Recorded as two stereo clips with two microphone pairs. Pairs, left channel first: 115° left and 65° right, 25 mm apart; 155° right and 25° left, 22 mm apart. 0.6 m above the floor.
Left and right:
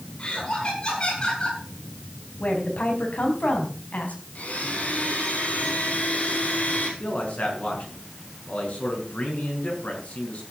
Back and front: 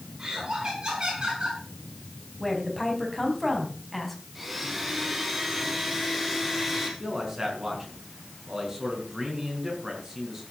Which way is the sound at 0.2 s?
70° left.